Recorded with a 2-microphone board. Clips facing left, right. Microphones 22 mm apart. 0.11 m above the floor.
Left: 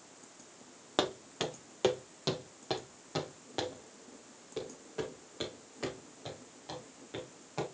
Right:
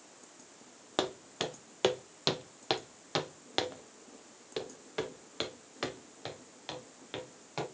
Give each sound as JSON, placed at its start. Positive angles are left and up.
{"t": 1.0, "sound": "footsteps", "side_deg": 5, "distance_m": 0.9}